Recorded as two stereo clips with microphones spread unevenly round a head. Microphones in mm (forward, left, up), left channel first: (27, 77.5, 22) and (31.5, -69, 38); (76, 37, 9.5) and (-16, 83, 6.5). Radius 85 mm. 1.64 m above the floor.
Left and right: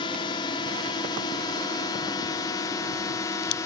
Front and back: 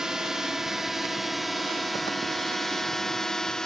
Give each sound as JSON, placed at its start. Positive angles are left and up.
{"t": 0.0, "sound": "a drone", "azimuth_deg": 70}